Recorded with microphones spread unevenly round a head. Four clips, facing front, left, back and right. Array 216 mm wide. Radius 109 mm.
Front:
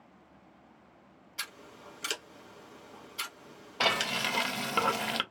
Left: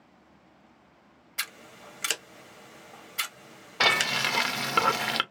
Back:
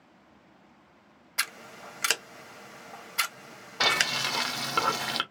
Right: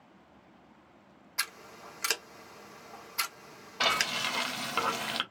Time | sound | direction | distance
1.4 | scissors | straight behind | 0.9 m
3.8 | frying | 85° left | 0.6 m